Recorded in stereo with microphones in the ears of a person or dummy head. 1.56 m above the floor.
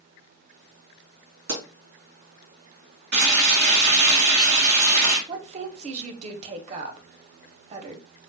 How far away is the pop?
About 2 m.